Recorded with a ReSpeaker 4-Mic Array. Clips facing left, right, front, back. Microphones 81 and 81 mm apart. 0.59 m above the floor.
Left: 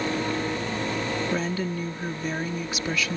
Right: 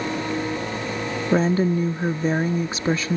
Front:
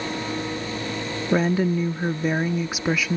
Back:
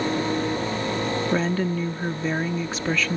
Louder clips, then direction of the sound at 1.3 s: Right 8 dB, front 7 dB; 75° right.